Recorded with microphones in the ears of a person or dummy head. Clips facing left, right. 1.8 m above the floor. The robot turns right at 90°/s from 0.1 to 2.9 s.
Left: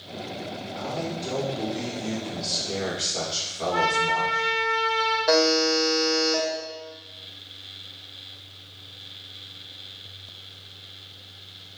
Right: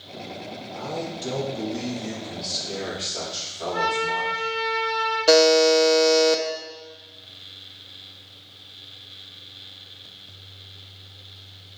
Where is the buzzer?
45° right (ahead or behind), 0.6 m.